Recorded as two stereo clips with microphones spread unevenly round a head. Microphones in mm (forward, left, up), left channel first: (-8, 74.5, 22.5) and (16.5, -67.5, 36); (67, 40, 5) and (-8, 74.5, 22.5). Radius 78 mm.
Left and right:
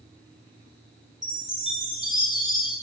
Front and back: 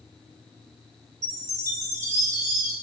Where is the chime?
160° right, 0.6 m.